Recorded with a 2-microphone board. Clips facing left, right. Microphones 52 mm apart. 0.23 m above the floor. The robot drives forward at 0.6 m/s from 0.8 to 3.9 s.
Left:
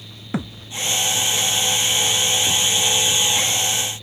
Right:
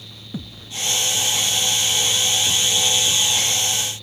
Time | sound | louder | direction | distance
0.3 | a thud | left 6 dB | 80° left | ?